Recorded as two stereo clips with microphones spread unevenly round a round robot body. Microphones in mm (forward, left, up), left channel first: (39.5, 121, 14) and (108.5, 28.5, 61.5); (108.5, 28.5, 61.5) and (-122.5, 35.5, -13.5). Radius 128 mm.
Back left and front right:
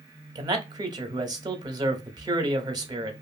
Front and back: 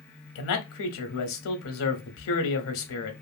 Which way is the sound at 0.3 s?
15° left.